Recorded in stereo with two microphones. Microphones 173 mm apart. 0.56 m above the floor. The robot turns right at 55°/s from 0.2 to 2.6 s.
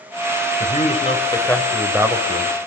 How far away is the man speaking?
About 3 m.